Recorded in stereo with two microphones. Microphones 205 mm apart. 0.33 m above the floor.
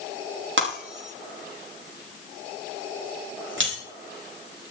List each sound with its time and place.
0.6 s breaking glass: 70° right (ahead or behind), 8 m